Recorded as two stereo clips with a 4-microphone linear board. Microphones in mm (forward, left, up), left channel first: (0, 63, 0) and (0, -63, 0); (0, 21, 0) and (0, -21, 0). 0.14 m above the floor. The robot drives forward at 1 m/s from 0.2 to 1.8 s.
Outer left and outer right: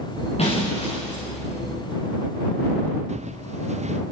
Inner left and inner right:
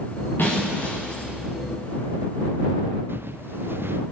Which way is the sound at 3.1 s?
65° right (ahead or behind).